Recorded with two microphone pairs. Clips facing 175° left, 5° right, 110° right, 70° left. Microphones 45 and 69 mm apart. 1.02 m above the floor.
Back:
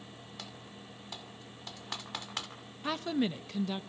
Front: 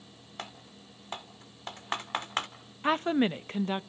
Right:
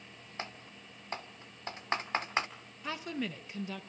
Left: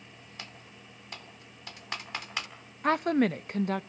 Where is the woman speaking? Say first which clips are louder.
Front 6 dB, left 13 dB; 40° left, 0.7 m.